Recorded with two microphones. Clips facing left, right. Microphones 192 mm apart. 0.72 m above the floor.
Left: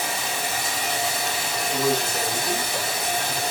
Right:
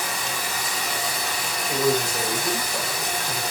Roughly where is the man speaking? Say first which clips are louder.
Right 2 dB; centre.